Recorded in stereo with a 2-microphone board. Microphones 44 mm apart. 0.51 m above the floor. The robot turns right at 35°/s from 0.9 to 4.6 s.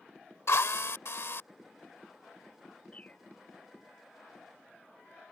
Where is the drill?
75° left (ahead or behind); by 1.4 s 60° left (ahead or behind).